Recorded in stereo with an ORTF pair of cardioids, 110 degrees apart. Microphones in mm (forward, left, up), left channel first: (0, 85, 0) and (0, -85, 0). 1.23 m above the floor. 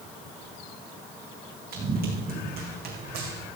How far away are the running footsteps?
About 4 m.